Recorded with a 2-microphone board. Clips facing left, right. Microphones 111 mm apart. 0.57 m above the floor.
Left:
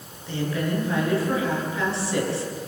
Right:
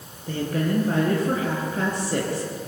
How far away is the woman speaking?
About 8.5 m.